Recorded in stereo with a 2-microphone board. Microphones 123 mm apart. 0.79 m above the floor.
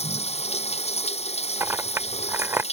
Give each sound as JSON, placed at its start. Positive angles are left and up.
{"t": 0.0, "sound": "running water", "side_deg": 65}
{"t": 1.6, "sound": "a clink", "side_deg": -20}